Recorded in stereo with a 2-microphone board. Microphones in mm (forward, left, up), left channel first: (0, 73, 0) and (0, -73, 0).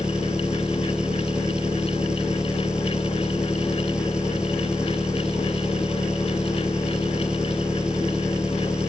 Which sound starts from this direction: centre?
An engine running, at 0.0 s.